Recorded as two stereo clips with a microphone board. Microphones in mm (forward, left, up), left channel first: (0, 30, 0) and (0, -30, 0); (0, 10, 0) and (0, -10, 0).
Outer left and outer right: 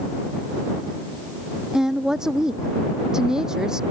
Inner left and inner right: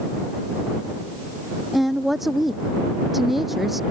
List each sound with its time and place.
1.7 s a woman speaking: 10° right (ahead or behind)